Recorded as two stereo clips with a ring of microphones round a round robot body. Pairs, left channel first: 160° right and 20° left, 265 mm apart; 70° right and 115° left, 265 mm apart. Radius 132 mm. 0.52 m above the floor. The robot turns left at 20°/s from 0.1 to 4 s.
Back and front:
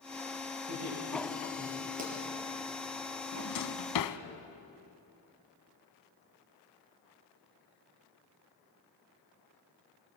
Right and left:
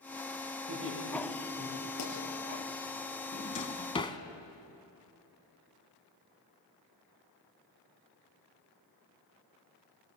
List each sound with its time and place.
0.7 s laughter: 65° left, 7 m; by 1.9 s 40° left, 7 m
2.0 s a pop: 40° right, 6 m
3.3 s a drawer: 125° right, 1.1 m; by 4.2 s 140° right, 1.1 m